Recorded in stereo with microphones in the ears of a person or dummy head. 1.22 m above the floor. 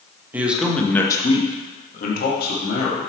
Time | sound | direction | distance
0.3 | a man speaking | 15° right (ahead or behind) | 1.7 m